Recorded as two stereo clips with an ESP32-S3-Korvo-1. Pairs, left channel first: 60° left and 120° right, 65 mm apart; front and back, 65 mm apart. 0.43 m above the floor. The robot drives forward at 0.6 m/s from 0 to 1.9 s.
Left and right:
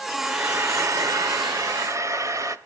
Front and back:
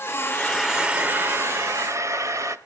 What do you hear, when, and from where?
0.2 s frying: 65° right, 0.6 m; by 2.6 s 150° right, 1.0 m